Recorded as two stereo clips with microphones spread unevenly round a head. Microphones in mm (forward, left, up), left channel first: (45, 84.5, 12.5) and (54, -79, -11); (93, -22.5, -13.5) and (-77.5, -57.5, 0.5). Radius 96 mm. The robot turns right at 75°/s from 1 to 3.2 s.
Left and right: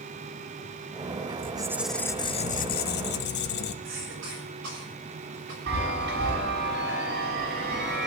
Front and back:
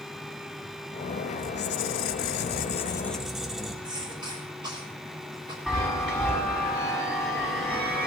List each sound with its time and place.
1.4 s a squeak: 30° right, 0.7 m; by 3.7 s 105° left, 0.7 m
3.8 s a cough: 105° right, 6.5 m
5.7 s a chime: 80° right, 5.5 m